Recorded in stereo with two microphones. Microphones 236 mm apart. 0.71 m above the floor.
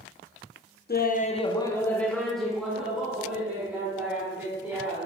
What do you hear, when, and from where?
0.9 s laughter: 45° left (ahead or behind), 0.6 m; by 5.1 s 10° right (ahead or behind), 4 m